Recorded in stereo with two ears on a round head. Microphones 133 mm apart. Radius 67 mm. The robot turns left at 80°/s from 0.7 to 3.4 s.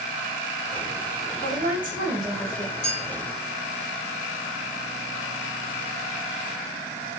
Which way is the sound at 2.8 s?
50° left (ahead or behind).